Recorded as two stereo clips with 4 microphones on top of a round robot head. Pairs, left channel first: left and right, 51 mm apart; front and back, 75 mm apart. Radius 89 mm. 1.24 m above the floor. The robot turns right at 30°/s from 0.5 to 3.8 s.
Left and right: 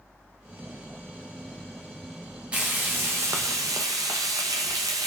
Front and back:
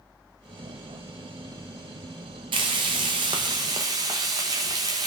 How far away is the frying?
About 0.5 m.